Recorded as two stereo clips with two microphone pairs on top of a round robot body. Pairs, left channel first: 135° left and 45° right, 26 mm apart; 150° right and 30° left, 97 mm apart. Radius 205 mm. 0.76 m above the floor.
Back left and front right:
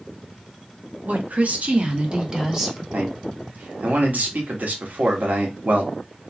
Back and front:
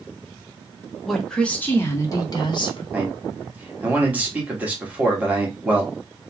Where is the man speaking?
45° right, 1.8 m.